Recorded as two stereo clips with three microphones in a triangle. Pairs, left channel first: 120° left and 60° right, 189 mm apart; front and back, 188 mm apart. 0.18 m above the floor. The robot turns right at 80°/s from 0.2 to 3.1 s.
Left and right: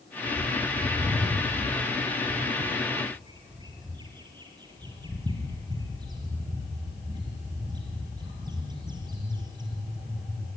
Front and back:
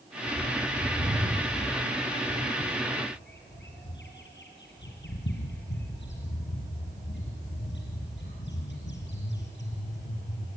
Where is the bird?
140° left, 5 m; by 10.5 s 5° left, 5 m.